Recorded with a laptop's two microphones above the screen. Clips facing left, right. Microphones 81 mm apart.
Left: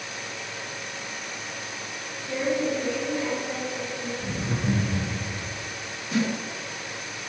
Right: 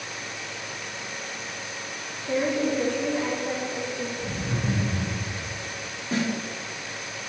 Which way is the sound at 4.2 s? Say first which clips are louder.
Even; 35° left (ahead or behind).